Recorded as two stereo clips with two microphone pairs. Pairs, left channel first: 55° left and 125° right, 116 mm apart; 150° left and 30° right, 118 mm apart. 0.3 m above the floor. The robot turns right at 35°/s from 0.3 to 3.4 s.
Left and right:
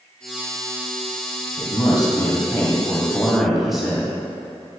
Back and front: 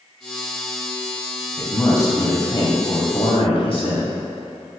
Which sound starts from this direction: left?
A man speaking, at 1.6 s.